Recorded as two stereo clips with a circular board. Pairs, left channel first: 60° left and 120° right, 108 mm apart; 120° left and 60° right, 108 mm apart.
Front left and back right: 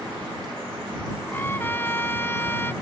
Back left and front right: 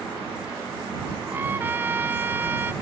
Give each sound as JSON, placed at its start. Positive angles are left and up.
{"t": 1.3, "sound": "a trumpet", "azimuth_deg": 0}